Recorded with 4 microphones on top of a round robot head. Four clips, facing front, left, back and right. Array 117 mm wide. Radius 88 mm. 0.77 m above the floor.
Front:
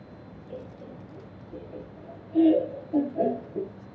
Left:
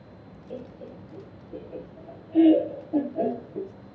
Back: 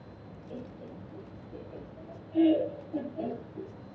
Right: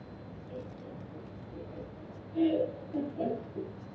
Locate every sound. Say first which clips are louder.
0.5 s laughter: left 5 dB, front 2 dB; 80° left, 3 m; by 3.7 s 25° left, 1.3 m